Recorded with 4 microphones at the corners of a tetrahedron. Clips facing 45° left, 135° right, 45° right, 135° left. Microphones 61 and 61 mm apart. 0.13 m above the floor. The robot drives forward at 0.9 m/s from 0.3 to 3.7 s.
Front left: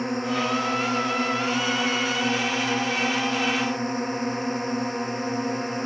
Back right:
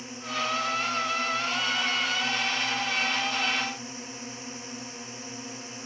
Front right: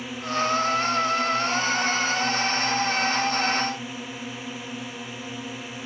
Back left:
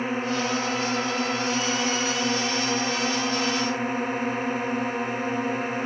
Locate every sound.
0.0 s a drone: 85° left